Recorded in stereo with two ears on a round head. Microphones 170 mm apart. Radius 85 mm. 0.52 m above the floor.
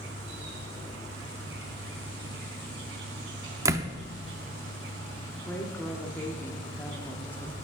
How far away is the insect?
About 3.5 m.